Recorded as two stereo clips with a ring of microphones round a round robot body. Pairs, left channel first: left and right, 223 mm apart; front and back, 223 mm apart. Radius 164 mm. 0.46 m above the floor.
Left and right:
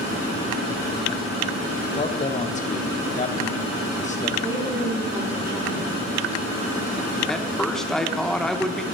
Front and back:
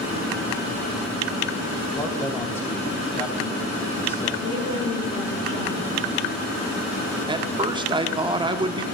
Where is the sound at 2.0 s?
75° left, 0.9 m.